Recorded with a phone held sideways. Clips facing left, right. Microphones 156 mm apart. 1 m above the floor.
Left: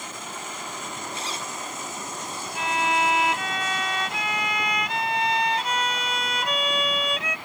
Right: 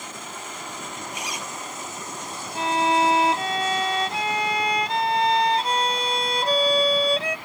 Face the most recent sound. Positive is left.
turn(degrees=-35)  # may be behind; listen again after turning